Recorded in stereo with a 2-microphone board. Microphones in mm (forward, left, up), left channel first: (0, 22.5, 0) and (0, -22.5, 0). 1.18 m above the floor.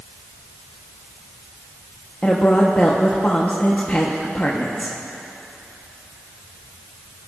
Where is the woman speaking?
30° left (ahead or behind), 0.9 m.